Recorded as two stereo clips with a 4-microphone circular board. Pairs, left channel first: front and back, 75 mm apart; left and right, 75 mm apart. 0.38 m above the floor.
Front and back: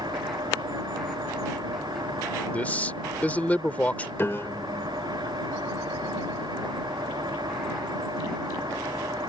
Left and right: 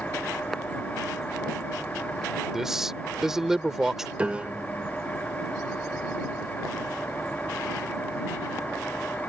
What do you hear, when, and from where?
0.0 s an engine running: 160° left
2.5 s a man speaking: 15° right
4.2 s a piano: 30° right